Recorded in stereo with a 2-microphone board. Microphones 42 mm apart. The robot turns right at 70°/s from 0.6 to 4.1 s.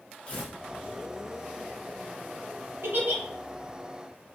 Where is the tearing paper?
30° left (ahead or behind), 0.8 m.